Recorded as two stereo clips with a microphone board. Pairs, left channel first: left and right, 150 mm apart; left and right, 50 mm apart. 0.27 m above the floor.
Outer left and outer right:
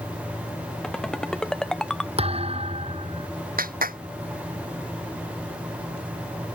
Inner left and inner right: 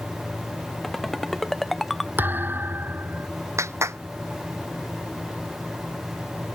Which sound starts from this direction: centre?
A ringtone, at 0.8 s.